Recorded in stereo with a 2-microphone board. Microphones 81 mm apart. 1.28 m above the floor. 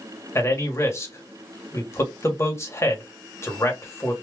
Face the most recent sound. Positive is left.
turn(degrees=35)  # may be behind; listen again after turning